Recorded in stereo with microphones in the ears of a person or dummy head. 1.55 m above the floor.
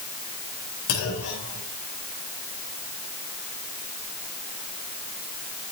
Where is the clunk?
75° left (ahead or behind), 4.5 m.